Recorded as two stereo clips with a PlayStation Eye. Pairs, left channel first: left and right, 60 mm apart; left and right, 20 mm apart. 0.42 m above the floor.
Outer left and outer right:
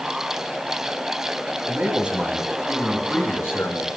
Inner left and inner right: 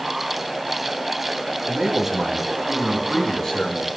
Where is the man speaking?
30° right (ahead or behind), 2.5 m; by 3.9 s 55° left (ahead or behind), 2.0 m.